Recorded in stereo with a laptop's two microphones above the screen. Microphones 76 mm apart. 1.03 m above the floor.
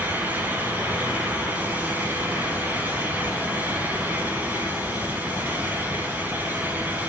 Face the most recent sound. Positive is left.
turn(degrees=-25)  # may be behind; listen again after turning